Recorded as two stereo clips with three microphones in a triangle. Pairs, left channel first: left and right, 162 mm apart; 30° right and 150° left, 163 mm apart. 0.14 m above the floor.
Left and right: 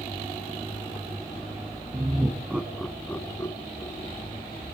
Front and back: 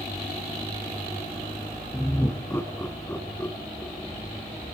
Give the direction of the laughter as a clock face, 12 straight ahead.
3 o'clock.